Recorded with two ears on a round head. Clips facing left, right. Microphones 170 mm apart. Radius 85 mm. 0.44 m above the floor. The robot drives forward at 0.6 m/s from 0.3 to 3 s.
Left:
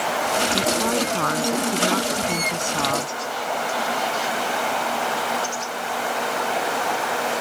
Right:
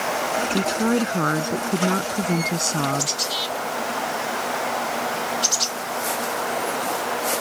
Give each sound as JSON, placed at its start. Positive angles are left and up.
{"t": 0.5, "sound": "a woman speaking", "side_deg": -25}